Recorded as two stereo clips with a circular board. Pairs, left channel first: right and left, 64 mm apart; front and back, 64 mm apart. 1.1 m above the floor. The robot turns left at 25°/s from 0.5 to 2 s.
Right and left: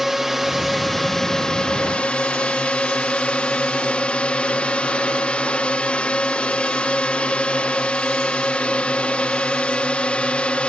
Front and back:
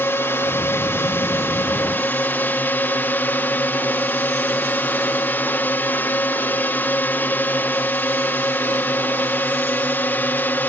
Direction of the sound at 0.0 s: 5° left.